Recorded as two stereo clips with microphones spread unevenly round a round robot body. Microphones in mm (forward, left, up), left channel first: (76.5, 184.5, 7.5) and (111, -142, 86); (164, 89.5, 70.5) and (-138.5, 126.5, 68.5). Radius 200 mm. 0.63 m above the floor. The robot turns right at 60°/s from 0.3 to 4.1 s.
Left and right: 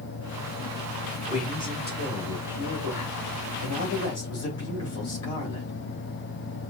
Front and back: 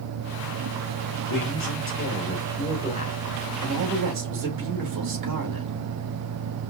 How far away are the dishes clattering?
I don't hear dishes clattering.